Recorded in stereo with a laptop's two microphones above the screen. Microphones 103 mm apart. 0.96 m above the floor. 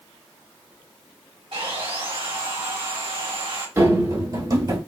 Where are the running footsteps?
30° right (ahead or behind), 1.0 m; by 4.8 s 35° right (ahead or behind), 1.3 m.